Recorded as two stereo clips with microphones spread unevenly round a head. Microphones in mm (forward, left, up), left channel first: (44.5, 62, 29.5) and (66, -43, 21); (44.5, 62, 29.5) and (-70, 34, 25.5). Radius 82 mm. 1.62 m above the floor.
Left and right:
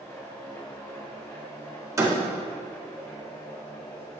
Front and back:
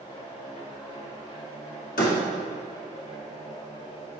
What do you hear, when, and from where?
0.0 s a machine running: 40° left, 3 m
2.0 s a door slam: 15° right, 2 m